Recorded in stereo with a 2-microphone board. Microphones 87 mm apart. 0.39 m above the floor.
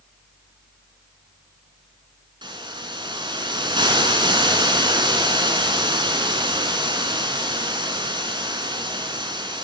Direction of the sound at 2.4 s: 70° right (ahead or behind).